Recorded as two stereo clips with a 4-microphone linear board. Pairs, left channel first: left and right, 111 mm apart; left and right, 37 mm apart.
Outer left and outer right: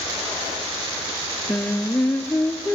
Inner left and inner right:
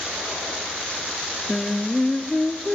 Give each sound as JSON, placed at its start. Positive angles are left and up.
{"t": 1.5, "sound": "singing", "side_deg": 15, "distance_m": 0.7}